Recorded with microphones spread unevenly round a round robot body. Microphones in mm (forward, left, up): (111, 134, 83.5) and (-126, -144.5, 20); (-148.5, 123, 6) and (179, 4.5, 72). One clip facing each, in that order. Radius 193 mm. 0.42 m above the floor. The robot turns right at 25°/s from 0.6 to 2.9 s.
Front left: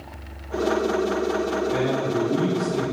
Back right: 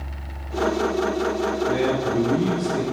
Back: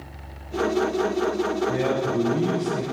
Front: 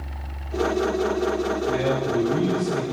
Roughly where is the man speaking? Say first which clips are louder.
Back right 1 dB, front 1 dB; ahead right.